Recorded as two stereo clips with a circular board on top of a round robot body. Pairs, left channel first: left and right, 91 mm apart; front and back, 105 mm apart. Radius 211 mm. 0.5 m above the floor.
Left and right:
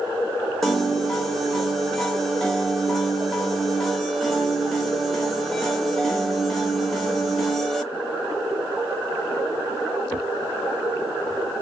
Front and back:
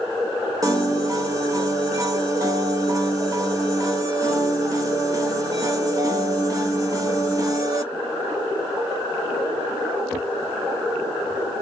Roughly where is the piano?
Behind.